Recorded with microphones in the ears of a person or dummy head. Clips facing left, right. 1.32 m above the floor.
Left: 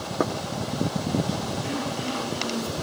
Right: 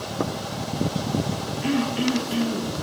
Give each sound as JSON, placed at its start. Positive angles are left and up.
{"t": 1.6, "sound": "throat clearing", "side_deg": -75, "distance_m": 2.0}